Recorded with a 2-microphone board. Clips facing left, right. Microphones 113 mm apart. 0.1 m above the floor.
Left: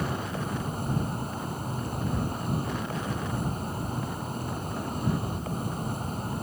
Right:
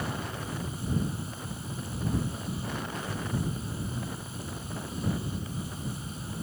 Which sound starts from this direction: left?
An insect, at 0.0 s.